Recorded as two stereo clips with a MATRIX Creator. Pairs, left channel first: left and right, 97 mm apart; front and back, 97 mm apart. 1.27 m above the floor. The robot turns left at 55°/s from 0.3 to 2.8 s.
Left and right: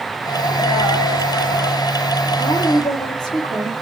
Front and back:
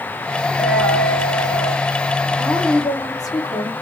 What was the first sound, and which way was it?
A dropped coin, 85° left.